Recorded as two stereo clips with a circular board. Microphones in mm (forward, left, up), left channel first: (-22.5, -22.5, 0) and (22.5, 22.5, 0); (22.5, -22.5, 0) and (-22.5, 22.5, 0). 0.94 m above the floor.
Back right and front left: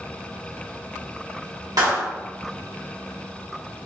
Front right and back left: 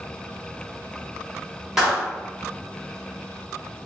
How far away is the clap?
About 1.7 m.